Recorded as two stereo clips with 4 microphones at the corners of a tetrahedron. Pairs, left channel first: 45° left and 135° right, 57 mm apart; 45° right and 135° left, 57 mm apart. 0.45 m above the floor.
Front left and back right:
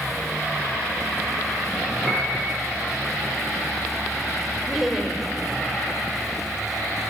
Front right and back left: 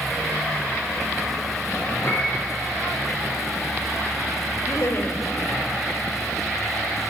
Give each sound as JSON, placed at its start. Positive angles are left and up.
{"t": 2.0, "sound": "a piano", "azimuth_deg": -85, "distance_m": 9.5}
{"t": 4.7, "sound": "laughter", "azimuth_deg": -55, "distance_m": 2.5}